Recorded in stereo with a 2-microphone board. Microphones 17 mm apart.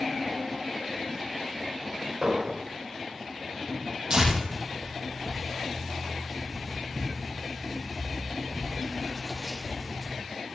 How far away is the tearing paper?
About 6.5 m.